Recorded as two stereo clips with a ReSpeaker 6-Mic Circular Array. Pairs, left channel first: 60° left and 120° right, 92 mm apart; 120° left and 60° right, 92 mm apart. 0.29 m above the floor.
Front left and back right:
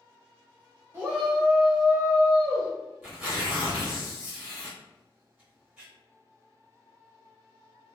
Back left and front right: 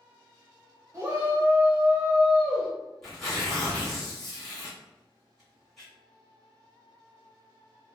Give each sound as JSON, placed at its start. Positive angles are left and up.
{"t": 0.9, "sound": "a shout", "azimuth_deg": -85, "distance_m": 1.0}
{"t": 3.0, "sound": "tearing paper", "azimuth_deg": -155, "distance_m": 1.1}